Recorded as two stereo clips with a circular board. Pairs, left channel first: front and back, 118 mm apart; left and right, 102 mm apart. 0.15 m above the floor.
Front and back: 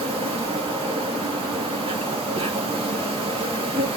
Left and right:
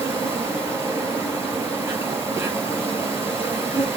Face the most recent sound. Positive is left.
turn(degrees=-150)